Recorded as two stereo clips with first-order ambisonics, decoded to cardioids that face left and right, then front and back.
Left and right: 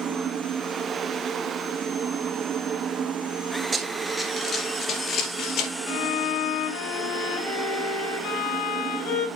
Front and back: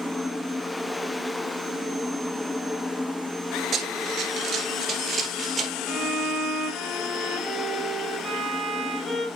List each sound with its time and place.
3.7 s running footsteps: 145° right, 1.9 m; by 5.7 s 105° left, 3 m
5.9 s a violin: 85° left, 4.5 m